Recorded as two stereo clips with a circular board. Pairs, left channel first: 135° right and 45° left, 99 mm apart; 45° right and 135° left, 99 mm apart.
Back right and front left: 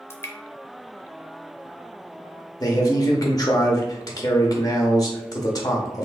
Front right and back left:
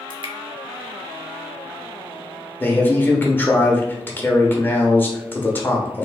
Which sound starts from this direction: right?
A man speaking, at 2.6 s.